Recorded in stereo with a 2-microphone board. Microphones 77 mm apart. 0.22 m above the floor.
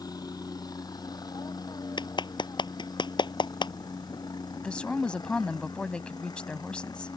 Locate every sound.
0.0 s a helicopter: 55° left (ahead or behind); by 7.2 s 60° left (ahead or behind)
2.0 s a clap: 75° left (ahead or behind)
4.5 s a woman speaking: 15° left (ahead or behind)